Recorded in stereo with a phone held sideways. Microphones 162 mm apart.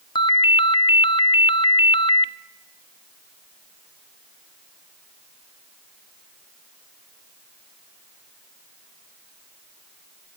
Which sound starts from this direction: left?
A ringtone, at 0.1 s.